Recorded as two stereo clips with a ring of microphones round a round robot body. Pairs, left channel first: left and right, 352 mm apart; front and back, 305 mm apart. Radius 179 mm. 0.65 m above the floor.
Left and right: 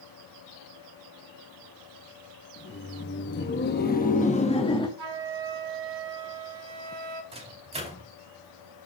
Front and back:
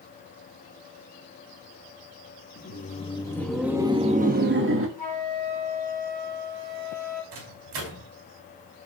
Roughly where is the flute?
Behind right.